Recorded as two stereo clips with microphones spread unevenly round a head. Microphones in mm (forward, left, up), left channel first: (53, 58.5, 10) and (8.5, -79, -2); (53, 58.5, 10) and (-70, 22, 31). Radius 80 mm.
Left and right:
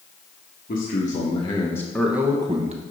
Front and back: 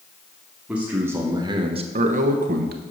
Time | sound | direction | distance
0.7 | a man speaking | 115° left | 1.4 m